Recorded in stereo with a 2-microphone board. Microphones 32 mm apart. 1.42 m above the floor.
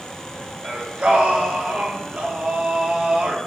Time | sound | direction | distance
0.6 | singing | 35° right (ahead or behind) | 0.6 m